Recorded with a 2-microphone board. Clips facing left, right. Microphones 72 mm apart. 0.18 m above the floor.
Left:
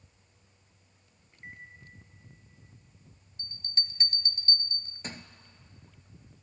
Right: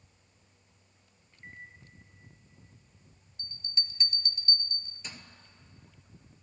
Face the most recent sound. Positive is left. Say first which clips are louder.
# left 1 dB
turn(degrees=45)  # may be behind; listen again after turning